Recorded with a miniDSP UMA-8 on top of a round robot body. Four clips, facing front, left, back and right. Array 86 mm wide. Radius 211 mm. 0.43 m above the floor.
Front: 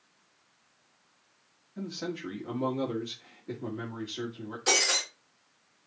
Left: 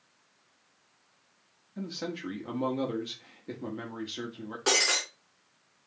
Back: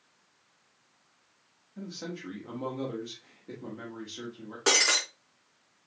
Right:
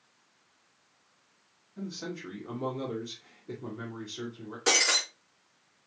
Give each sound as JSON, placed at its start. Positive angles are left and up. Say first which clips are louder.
{"t": 1.8, "sound": "a man speaking", "louder": "left 2 dB, front 4 dB", "azimuth_deg": 75, "distance_m": 1.8}
{"t": 4.7, "sound": "breaking glass", "louder": "even, back 2 dB", "azimuth_deg": 170, "distance_m": 3.5}